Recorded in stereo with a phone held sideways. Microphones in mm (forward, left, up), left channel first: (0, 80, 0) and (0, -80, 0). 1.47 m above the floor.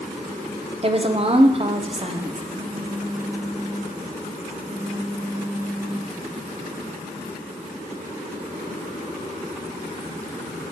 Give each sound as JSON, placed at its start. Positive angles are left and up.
{"t": 0.8, "sound": "a woman speaking", "side_deg": -40, "distance_m": 0.6}
{"t": 2.5, "sound": "a phone buzzing", "side_deg": -75, "distance_m": 1.8}